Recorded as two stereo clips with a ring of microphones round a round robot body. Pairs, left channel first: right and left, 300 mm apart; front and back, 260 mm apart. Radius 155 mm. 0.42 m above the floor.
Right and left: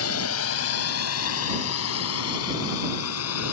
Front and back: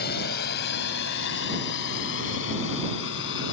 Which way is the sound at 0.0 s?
55° right.